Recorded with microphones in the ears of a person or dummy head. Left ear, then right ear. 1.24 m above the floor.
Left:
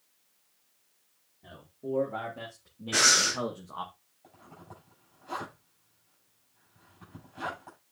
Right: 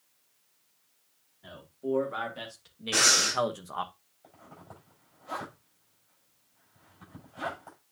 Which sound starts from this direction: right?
A man speaking, at 1.4 s.